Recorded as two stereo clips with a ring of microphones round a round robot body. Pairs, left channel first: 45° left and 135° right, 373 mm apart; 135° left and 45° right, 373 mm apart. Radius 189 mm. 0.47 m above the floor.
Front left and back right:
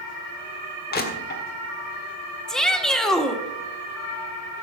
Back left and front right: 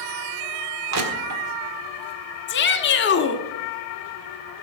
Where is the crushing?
15° right, 1.7 m.